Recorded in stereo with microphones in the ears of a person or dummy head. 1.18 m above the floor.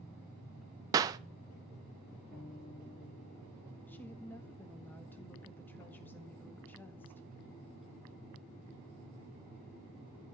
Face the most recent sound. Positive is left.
turn(degrees=5)  # may be behind; listen again after turning